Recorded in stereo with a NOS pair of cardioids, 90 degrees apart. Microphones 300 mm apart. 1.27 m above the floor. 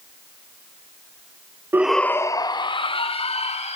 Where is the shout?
10° right, 0.7 m; by 3.8 s 20° left, 3 m.